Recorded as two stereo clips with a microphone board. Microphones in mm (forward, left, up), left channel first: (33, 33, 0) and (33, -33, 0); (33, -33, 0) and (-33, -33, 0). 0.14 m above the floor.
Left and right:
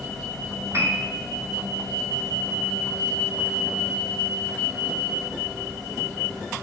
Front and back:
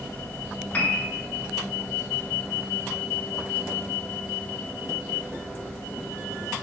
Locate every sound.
0.7 s a piano: 60° right, 0.7 m